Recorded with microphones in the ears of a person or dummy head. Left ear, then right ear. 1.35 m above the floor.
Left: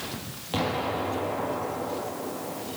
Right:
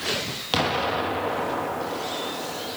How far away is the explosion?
About 1.3 m.